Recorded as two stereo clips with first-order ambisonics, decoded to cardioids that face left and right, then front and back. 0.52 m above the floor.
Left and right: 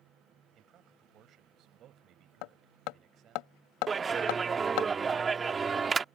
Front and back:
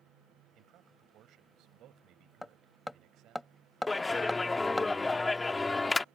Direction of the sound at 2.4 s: 85° left.